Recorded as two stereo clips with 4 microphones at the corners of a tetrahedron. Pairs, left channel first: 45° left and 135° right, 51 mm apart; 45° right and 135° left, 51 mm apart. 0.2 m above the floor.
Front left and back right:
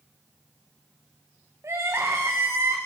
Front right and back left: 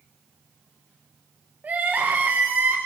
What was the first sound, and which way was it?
Crying, 165° right.